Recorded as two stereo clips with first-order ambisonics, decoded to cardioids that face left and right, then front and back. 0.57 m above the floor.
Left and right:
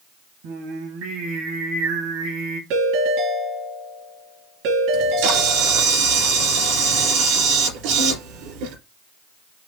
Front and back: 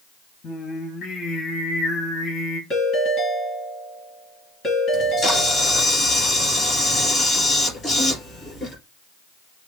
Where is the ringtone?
65° right, 4 m.